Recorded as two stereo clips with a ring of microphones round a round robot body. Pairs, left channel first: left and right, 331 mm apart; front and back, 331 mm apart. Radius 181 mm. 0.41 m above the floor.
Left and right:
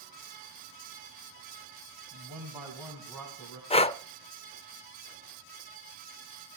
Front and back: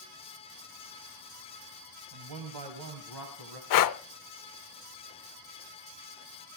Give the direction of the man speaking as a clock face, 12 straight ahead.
5 o'clock.